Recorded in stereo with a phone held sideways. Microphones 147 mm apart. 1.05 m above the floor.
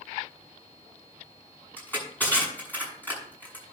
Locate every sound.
1.8 s crushing: 10° left (ahead or behind), 7 m